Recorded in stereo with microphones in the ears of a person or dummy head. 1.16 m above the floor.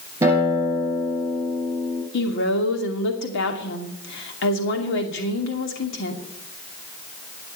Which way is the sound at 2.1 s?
60° left (ahead or behind).